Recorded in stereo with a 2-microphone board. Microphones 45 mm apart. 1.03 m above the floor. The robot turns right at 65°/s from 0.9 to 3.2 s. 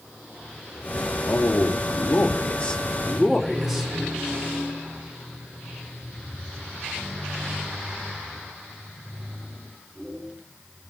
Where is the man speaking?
60° left, 2.5 m; by 3.9 s 175° right, 2.5 m.